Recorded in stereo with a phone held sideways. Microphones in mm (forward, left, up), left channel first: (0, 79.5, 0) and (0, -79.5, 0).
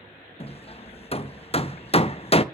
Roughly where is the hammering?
Left.